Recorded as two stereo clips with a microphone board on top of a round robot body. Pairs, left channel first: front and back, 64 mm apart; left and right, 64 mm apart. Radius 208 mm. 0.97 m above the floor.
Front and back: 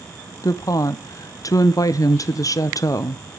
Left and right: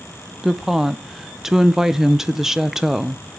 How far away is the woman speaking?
About 0.9 m.